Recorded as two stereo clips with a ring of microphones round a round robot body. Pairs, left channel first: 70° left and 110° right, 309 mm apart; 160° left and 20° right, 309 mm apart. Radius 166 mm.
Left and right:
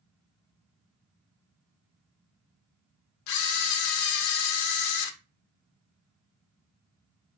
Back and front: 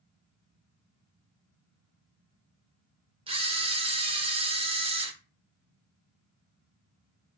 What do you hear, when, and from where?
3.3 s a camera shutter: 50° left, 0.5 m